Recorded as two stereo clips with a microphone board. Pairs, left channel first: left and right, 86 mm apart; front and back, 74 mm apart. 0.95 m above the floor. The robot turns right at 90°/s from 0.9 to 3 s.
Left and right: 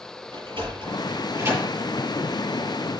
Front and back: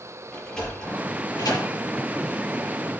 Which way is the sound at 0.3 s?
80° right.